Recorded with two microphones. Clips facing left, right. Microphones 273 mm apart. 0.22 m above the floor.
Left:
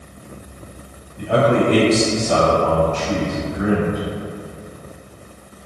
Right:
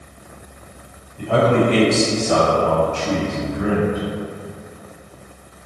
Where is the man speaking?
20° left (ahead or behind), 1.3 m; by 4.0 s 35° right (ahead or behind), 1.5 m.